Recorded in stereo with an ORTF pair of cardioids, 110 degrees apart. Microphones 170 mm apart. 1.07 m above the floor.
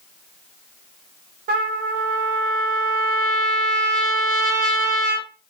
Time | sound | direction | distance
1.5 | a trumpet | 60° right | 1.0 m